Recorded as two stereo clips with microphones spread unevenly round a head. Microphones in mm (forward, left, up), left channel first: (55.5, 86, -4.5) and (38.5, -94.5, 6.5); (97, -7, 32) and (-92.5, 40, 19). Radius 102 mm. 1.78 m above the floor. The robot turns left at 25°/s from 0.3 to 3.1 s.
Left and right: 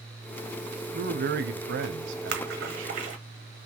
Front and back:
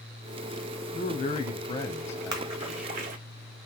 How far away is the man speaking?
About 0.8 m.